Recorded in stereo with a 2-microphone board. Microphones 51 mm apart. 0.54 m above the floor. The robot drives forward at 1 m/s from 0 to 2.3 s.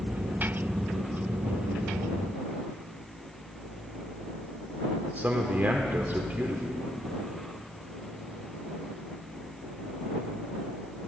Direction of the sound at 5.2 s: 40° right (ahead or behind).